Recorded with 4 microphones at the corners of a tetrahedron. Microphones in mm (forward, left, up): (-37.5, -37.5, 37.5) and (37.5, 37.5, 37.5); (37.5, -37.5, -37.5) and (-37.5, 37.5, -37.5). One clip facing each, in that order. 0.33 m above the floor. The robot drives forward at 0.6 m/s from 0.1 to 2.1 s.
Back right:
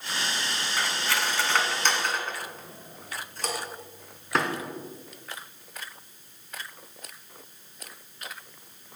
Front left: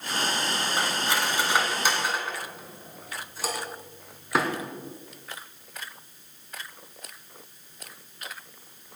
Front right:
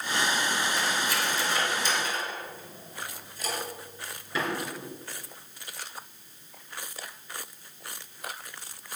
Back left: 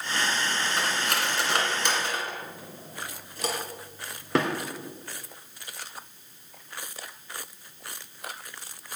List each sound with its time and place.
0.8 s cutlery clinking: 110° left, 2.0 m; by 4.5 s 130° left, 2.5 m